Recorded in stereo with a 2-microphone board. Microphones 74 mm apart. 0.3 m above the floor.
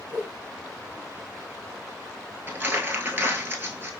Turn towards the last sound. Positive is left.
turn(degrees=-30)  # may be behind; listen again after turning